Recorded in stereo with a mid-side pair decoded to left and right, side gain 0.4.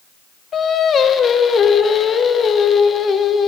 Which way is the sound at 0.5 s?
55° left.